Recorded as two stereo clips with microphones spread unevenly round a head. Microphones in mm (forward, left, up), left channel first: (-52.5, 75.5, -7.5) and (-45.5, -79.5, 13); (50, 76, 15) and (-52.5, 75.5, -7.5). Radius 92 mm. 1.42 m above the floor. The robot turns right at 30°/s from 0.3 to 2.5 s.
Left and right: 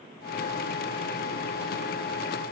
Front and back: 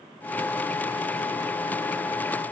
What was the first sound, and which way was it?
Only background noise.